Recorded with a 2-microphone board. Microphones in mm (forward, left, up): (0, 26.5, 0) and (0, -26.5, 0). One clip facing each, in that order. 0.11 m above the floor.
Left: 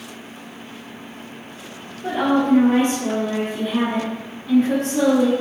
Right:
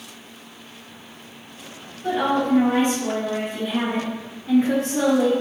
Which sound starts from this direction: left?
A woman speaking, at 2.0 s.